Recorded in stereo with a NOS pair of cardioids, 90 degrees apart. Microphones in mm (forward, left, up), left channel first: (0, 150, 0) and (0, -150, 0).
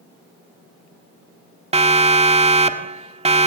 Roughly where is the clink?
No clink in this recording.